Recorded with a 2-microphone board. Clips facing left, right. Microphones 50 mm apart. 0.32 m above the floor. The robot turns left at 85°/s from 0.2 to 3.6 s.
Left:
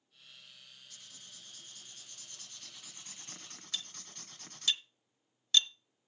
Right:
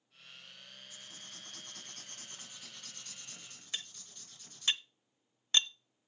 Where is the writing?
25° right, 2 m; by 4.7 s 110° left, 2 m.